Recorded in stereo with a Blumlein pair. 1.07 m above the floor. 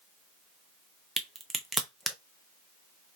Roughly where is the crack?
Ahead.